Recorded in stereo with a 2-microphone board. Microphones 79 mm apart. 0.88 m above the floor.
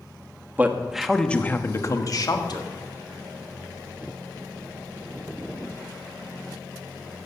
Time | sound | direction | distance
0.6 | a man speaking | 20° right (ahead or behind) | 1.2 m